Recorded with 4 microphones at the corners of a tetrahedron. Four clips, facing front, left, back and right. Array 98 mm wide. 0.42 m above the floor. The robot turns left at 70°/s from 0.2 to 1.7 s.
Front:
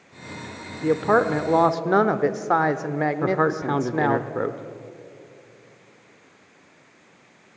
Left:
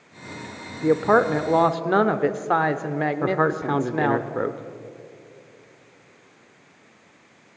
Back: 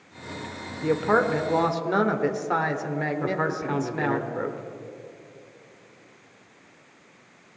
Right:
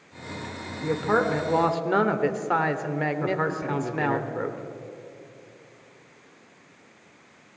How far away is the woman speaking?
About 1.0 m.